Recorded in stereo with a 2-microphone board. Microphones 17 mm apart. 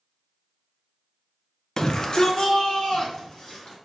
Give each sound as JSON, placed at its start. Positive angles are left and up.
{"t": 1.8, "sound": "a shout", "side_deg": 25, "distance_m": 0.5}